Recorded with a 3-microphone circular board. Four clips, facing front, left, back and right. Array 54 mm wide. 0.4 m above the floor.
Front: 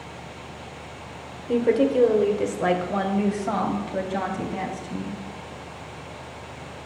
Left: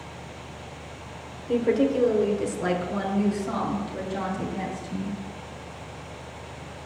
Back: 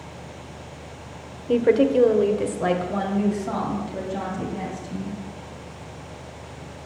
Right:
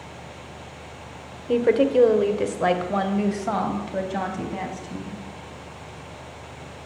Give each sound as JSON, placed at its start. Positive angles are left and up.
{"t": 1.5, "sound": "a woman speaking", "azimuth_deg": -130, "distance_m": 1.1}